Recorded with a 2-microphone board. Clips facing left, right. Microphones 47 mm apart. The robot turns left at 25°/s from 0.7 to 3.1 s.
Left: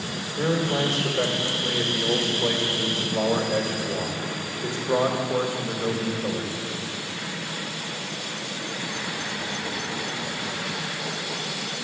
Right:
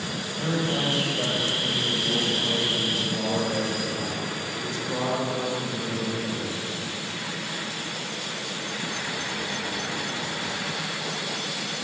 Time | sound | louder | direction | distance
0.4 | a man speaking | left 3 dB | 105° left | 2.5 m